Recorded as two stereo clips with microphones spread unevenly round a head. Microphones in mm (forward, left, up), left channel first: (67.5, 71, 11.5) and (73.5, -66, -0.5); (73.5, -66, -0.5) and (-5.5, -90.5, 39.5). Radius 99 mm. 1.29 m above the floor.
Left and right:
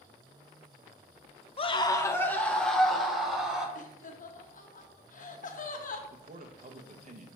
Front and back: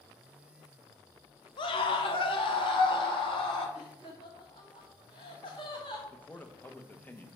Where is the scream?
45° left, 1.0 m; by 3.6 s straight ahead, 3 m.